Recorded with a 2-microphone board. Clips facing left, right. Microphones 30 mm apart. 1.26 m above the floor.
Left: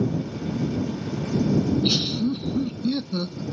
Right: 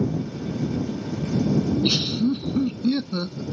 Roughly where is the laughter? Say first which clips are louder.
Even; right.